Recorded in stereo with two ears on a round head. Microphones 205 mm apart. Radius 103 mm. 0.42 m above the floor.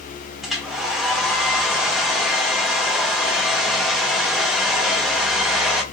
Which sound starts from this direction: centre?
A hair dryer, at 0.4 s.